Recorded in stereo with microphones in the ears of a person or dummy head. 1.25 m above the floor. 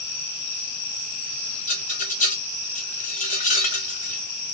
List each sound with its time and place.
1.7 s a rattle: 45° left (ahead or behind), 0.8 m